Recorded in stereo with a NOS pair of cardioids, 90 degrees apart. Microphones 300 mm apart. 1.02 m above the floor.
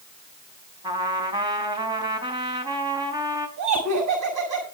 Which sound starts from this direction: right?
Laughter, at 3.6 s.